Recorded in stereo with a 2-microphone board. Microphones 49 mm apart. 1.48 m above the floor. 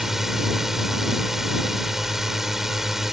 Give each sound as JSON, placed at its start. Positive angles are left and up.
{"t": 0.0, "sound": "a drone", "side_deg": -5}